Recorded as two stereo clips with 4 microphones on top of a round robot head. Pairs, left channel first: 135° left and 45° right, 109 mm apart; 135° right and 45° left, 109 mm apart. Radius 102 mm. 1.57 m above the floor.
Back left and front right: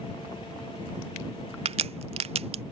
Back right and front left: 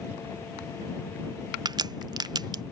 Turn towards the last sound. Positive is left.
turn(degrees=-10)